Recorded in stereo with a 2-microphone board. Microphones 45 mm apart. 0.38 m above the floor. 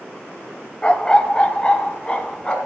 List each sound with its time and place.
0.8 s a dog barking: 25° left (ahead or behind), 0.8 m; by 2.6 s 20° left (ahead or behind), 1.7 m